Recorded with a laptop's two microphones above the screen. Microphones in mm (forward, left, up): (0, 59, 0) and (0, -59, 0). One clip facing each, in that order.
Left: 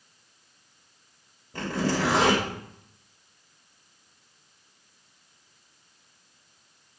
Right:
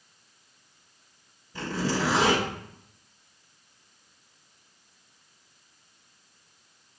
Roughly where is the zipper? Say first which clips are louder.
Left 2 dB; left.